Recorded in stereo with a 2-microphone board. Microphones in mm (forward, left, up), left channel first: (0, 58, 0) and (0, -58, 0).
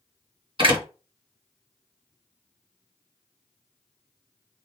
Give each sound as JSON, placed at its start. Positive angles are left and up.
{"t": 0.6, "sound": "a door slam", "side_deg": -45, "distance_m": 1.9}